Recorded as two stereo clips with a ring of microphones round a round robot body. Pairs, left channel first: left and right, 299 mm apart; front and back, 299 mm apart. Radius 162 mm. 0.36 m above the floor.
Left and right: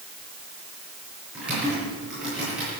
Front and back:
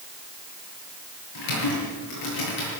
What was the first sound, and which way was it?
Typing on a keyboard, 5° right.